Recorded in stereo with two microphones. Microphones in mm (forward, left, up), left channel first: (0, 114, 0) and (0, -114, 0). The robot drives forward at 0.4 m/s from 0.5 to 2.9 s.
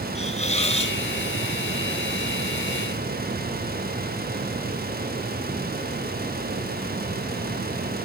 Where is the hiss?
30° left (ahead or behind), 1.0 m; by 1.0 s 25° left (ahead or behind), 1.1 m.